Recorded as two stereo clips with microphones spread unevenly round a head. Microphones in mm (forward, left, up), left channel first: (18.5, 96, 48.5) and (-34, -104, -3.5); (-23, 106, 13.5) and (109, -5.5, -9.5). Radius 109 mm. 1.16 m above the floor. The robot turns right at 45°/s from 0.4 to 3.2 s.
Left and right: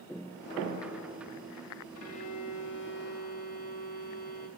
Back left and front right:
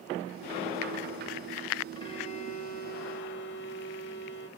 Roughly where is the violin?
Left.